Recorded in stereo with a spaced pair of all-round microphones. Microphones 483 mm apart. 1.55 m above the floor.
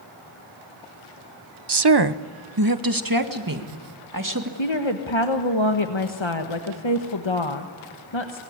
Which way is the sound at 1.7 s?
55° right (ahead or behind).